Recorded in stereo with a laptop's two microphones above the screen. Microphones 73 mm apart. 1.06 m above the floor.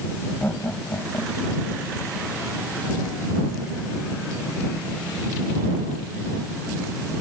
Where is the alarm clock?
No alarm clock in this recording.